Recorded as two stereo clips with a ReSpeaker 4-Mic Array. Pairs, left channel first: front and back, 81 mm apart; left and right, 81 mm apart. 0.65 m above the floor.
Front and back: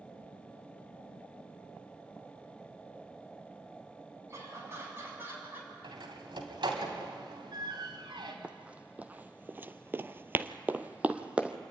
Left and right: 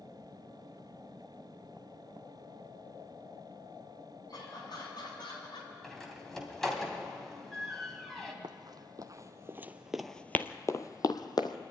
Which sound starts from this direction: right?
Running footsteps, at 8.4 s.